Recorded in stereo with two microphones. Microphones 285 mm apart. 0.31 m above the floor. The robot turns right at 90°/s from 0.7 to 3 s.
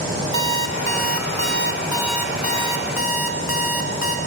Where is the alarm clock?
125° right, 1.1 m; by 4.2 s 80° left, 1.1 m.